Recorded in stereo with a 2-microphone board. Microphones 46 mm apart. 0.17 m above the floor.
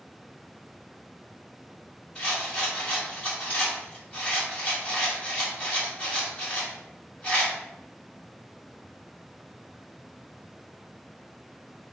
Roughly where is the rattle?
Left.